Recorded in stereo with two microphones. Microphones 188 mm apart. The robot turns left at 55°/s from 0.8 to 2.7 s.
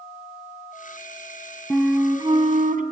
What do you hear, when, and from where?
1.7 s a flute: 5° left, 1.2 m; by 2.8 s 50° right, 1.2 m